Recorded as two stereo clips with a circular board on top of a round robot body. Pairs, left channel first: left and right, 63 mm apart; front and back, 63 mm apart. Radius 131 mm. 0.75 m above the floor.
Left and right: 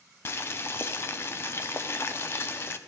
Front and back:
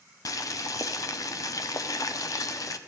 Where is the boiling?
35° left, 0.5 m.